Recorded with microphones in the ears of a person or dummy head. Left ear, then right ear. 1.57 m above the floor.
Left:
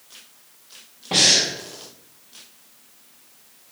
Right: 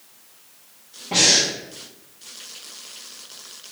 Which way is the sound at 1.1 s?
40° left (ahead or behind).